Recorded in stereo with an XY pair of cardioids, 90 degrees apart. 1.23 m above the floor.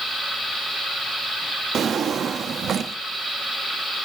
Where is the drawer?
60° right, 1.2 m.